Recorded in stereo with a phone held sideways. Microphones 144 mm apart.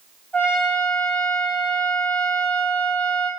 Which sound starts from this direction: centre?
A trumpet, at 0.3 s.